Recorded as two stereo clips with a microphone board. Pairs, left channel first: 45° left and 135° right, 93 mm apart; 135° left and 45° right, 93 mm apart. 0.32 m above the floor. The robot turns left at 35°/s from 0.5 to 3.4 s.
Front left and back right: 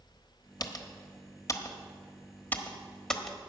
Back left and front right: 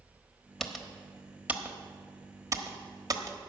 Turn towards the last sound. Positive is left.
turn(degrees=-45)